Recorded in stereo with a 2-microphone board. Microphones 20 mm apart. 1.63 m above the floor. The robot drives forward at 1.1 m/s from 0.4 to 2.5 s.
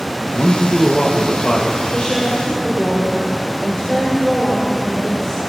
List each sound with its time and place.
0.3 s a man speaking: 80° left, 2.0 m; by 1.8 s 45° left (ahead or behind), 2.5 m
1.9 s a woman speaking: 60° left (ahead or behind), 6 m; by 5.4 s 55° left (ahead or behind), 6 m